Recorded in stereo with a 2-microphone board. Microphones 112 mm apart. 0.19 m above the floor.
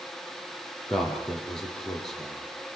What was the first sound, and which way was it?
A man speaking, centre (ahead or behind).